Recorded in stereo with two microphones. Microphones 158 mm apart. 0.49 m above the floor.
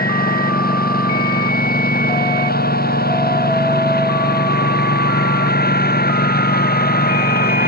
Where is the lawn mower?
70° left (ahead or behind); by 7.7 s 80° left.